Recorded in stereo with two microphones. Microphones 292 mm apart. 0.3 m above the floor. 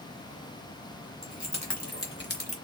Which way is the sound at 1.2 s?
70° left (ahead or behind).